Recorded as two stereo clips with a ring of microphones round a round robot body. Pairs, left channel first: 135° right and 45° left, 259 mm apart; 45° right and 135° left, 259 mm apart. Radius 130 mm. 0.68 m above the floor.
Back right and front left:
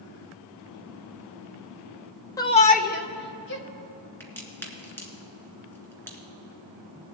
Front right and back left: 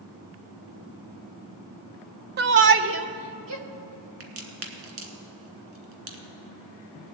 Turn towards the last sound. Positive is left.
turn(degrees=140)